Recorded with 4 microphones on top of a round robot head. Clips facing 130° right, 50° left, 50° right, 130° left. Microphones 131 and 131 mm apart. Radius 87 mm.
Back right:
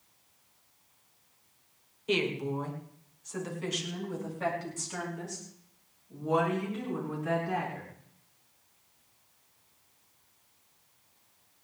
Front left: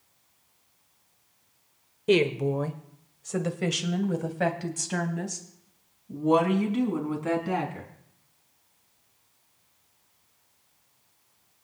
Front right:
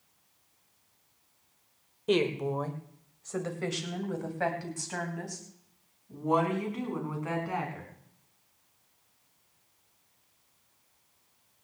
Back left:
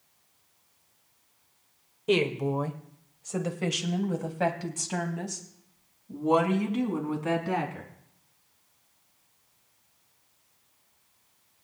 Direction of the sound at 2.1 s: 40° left.